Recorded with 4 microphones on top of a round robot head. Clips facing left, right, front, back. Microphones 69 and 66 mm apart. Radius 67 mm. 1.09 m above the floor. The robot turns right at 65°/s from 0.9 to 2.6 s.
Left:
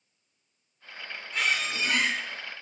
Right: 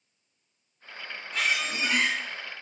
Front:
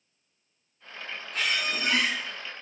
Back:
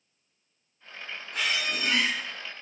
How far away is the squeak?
About 2.0 m.